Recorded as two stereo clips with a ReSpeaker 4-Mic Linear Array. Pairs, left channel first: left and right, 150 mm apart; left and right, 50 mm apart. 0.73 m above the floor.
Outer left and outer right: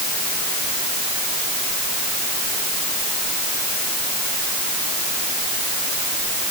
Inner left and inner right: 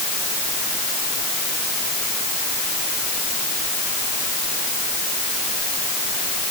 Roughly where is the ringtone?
No ringtone in this recording.